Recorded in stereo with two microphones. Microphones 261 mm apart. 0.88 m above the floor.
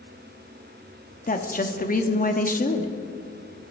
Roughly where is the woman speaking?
Left.